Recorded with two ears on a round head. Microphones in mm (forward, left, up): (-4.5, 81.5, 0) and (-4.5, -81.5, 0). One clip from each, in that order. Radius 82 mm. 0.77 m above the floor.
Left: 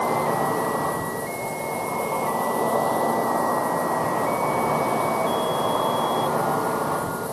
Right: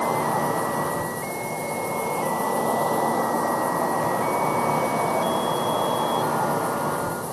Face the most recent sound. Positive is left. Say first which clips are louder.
# left 1 dB
turn(degrees=-35)  # may be behind; listen again after turning